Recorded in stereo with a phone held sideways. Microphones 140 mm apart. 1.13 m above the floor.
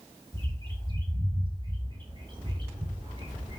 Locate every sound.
0.3 s a bird: 35° right (ahead or behind), 6 m